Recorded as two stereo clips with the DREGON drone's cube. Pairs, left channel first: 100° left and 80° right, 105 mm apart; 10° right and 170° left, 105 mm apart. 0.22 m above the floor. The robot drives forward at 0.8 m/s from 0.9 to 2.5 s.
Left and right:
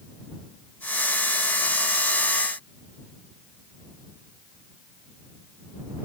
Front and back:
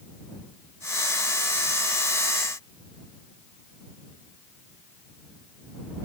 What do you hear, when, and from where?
Only background noise.